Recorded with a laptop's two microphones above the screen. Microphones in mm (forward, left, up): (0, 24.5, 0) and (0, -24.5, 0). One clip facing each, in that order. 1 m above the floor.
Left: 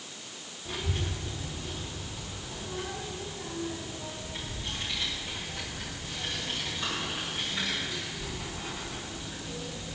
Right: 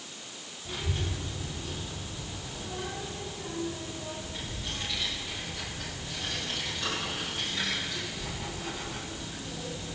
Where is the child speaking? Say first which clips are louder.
Even; 10° left (ahead or behind), 1.5 m; by 9.9 s centre (ahead or behind), 6 m.